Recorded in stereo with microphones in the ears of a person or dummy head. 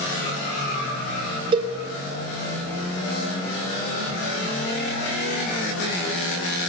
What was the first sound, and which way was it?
A cowbell, 30° right (ahead or behind).